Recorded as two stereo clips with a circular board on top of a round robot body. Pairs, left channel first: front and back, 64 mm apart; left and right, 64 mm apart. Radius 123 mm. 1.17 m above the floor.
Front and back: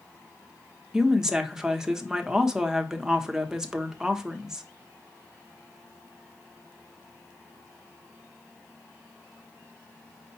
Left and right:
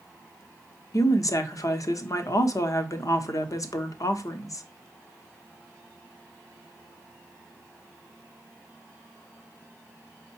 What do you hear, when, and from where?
0.9 s a woman speaking: 100° left, 0.8 m